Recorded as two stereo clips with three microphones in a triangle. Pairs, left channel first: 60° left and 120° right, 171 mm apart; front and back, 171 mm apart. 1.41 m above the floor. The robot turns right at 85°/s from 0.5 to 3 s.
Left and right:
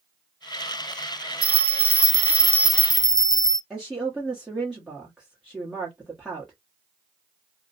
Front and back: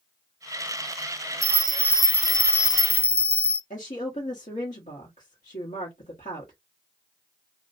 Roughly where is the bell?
Behind right.